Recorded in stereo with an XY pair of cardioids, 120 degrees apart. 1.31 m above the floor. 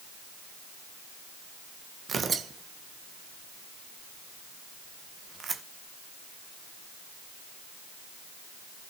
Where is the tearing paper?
35° right, 1.4 m.